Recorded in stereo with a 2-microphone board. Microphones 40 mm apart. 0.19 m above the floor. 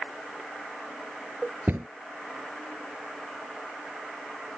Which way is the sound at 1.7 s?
60° right (ahead or behind).